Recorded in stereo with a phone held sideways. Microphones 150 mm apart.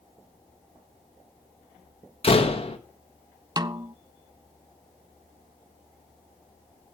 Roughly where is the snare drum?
Right.